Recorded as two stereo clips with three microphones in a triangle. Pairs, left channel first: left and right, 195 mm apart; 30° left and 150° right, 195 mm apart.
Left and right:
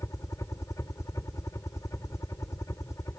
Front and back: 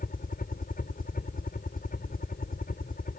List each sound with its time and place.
0.0 s a helicopter: 20° left